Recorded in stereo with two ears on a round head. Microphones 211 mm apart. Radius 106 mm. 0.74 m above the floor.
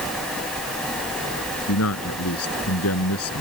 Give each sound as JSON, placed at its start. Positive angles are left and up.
{"t": 1.7, "sound": "a man speaking", "side_deg": 70}